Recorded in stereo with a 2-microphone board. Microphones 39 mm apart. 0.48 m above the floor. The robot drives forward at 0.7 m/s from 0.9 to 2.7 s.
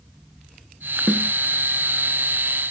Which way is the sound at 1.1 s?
25° right (ahead or behind).